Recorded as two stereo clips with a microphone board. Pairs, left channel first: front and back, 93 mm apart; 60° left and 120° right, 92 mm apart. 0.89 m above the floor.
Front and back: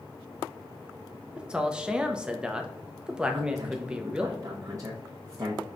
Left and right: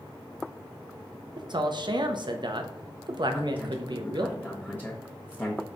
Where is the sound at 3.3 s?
130° left, 0.7 m.